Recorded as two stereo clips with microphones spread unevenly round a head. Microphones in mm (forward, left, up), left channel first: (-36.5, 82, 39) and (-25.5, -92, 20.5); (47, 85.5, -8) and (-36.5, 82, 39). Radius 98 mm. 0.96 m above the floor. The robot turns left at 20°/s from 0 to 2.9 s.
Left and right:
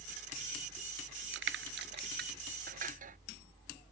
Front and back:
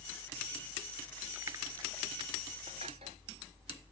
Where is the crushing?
100° right; by 3.2 s 130° right.